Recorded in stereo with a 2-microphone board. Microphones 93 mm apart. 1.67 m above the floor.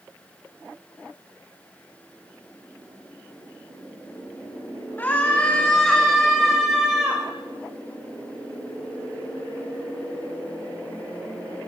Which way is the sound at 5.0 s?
20° left (ahead or behind).